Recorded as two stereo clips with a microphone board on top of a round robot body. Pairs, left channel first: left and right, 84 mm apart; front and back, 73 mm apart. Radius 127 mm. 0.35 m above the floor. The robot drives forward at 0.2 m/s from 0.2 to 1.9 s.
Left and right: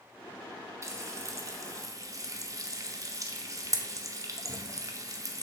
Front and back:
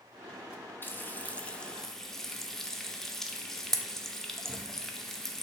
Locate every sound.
0.8 s frying: 50° right, 0.7 m; by 5.4 s 80° right, 0.6 m